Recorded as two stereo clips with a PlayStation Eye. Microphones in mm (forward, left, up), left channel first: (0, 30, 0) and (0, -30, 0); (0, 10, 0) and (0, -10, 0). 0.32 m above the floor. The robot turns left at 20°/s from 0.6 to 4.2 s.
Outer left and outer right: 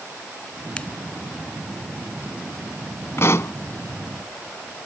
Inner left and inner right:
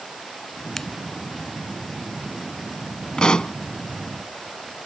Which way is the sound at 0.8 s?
20° left (ahead or behind).